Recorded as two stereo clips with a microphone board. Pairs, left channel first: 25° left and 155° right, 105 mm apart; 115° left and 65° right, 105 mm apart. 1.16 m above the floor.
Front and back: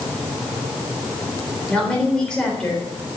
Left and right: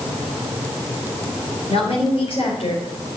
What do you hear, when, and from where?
1.7 s a woman speaking: 105° left, 3.5 m